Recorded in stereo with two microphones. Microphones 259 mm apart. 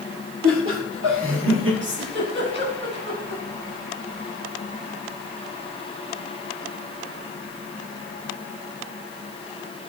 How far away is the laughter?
About 5.5 m.